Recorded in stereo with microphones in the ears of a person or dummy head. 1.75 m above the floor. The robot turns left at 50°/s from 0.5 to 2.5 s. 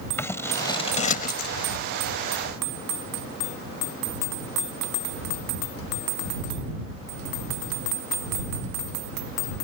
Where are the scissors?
10° left (ahead or behind); by 1.5 s 60° left (ahead or behind).